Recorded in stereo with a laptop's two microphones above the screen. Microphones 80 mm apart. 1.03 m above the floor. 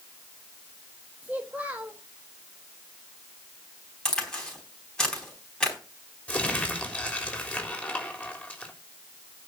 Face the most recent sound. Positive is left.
turn(degrees=20)  # may be behind; listen again after turning